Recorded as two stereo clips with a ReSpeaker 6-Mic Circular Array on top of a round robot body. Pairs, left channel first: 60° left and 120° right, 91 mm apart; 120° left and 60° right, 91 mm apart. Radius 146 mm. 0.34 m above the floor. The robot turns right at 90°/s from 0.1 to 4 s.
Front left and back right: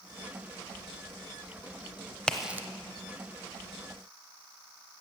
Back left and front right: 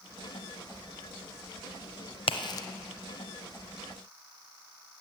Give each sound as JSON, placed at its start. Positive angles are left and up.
{"t": 2.3, "sound": "a crack", "azimuth_deg": 140, "distance_m": 0.8}